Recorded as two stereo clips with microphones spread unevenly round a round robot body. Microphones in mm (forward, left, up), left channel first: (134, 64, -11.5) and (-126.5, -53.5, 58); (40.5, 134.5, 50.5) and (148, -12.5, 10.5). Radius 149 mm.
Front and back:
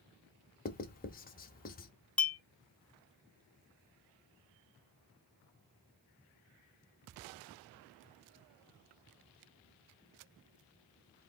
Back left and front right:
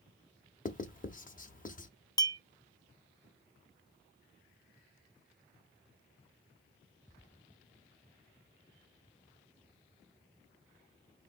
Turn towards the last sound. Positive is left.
turn(degrees=55)